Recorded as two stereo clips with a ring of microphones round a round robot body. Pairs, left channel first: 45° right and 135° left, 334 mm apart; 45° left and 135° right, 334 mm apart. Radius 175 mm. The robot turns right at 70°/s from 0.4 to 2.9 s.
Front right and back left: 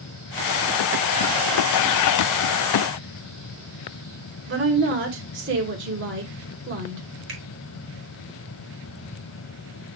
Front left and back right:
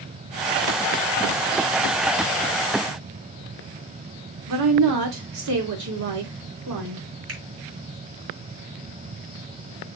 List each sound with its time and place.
4.5 s a woman speaking: 170° right, 3 m
7.3 s a finger snap: straight behind, 5.5 m